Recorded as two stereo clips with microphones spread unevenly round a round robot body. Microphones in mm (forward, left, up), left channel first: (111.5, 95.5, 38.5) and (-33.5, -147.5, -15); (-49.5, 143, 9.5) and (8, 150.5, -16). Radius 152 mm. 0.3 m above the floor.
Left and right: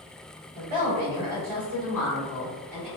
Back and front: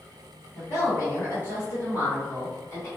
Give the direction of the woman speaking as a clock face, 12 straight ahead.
6 o'clock.